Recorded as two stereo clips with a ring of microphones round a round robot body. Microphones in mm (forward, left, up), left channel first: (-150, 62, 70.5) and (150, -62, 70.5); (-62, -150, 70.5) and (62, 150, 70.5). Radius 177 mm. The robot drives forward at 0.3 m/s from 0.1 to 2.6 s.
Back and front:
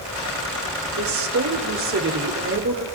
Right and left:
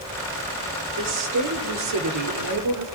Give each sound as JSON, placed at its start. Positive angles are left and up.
{"t": 1.0, "sound": "a woman speaking", "azimuth_deg": 25, "distance_m": 3.0}